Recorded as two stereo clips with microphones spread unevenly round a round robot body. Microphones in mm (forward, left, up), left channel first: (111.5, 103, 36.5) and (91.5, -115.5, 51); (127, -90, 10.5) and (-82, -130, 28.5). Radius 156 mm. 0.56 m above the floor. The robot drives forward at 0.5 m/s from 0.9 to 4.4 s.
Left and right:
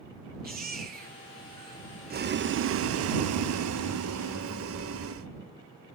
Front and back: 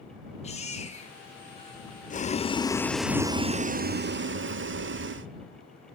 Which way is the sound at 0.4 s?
50° right.